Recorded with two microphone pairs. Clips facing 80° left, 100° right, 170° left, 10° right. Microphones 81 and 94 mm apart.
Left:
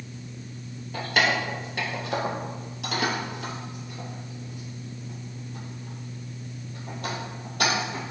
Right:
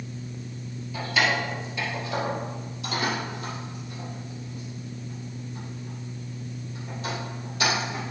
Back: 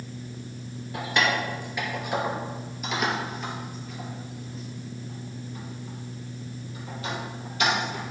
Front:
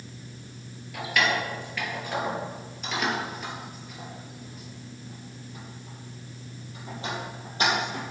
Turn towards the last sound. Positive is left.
turn(degrees=45)